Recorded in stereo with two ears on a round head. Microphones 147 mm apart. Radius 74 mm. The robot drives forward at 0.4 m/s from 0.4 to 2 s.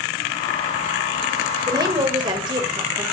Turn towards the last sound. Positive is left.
turn(degrees=-30)  # may be behind; listen again after turning